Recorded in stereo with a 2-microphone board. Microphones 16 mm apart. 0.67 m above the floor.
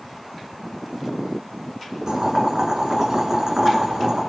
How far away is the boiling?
About 6.5 m.